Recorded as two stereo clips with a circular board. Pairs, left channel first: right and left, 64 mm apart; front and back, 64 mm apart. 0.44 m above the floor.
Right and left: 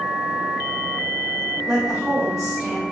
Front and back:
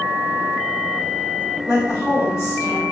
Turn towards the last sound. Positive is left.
turn(degrees=165)